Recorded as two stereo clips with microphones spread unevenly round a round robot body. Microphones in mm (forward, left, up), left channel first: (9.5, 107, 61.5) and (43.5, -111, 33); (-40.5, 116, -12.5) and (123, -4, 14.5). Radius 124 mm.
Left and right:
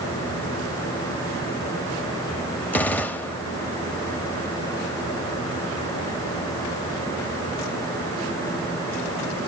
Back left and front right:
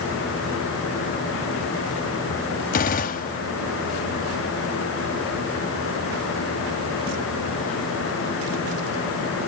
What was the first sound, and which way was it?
A gunshot, 175° right.